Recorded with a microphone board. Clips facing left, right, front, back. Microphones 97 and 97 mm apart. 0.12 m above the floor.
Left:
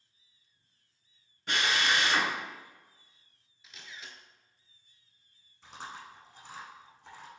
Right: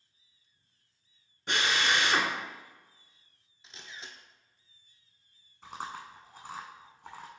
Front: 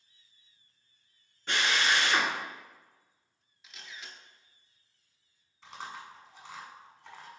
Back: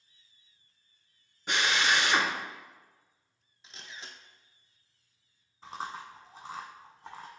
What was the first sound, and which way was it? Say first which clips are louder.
A drill: right 1 dB, back 1 dB; 130° right.